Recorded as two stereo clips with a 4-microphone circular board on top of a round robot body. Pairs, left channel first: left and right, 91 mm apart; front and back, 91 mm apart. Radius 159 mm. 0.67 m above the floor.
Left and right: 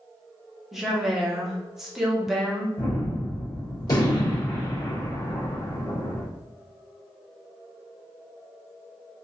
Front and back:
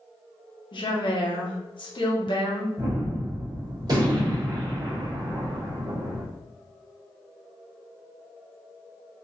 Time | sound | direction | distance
0.7 | a woman speaking | 5° right | 1.5 m
2.8 | a gunshot | 135° left | 2 m